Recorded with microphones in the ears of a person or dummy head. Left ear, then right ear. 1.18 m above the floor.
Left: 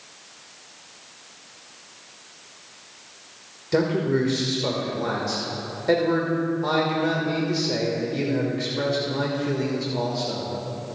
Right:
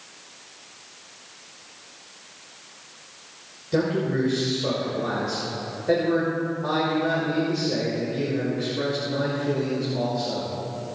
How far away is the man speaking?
About 1.5 m.